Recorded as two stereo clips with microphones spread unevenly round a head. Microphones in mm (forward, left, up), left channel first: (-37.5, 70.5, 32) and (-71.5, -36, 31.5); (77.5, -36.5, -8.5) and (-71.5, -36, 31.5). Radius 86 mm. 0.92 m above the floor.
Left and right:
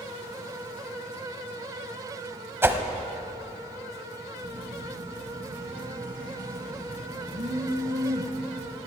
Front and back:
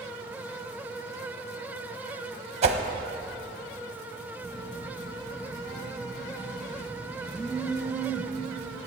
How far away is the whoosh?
About 0.9 m.